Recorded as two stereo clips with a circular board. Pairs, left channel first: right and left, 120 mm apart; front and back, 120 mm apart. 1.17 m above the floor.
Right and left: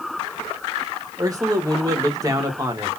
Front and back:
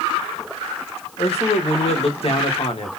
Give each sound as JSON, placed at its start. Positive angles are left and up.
{"t": 1.2, "sound": "a man speaking", "azimuth_deg": 30, "distance_m": 1.6}